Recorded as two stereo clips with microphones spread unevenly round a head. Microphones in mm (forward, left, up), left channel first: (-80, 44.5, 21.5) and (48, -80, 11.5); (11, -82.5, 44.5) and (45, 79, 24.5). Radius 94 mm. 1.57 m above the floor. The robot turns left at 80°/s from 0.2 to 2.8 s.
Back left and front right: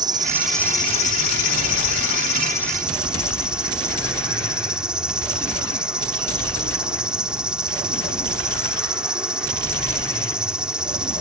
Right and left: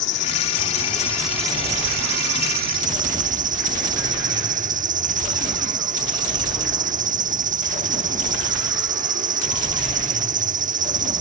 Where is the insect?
110° right; by 11.2 s 40° left.